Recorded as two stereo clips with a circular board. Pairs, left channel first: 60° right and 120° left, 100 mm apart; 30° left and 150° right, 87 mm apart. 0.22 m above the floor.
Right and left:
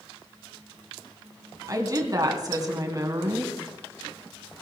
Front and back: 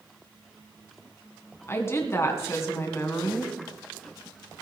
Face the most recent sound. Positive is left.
turn(degrees=80)